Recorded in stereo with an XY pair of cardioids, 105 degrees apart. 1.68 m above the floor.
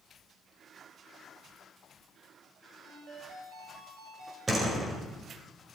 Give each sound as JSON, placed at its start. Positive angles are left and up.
{"t": 2.8, "sound": "a ringtone", "azimuth_deg": -60, "distance_m": 5.5}
{"t": 4.5, "sound": "a door slam", "azimuth_deg": -25, "distance_m": 5.0}